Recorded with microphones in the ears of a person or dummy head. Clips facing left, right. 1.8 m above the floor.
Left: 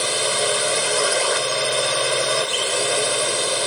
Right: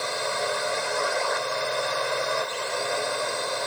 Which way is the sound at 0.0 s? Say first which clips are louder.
Left 5 dB; 45° left (ahead or behind).